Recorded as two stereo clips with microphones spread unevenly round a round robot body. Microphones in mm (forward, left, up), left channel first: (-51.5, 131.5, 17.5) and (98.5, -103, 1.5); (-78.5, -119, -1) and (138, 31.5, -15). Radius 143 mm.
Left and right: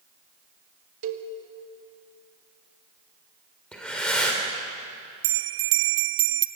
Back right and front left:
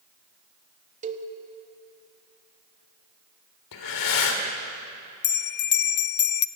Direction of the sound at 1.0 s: 20° right.